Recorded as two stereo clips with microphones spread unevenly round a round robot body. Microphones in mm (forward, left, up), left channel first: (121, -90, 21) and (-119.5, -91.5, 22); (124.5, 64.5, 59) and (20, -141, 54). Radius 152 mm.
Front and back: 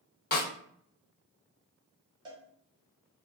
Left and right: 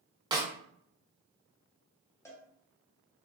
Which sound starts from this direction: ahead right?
A snare drum, at 0.3 s.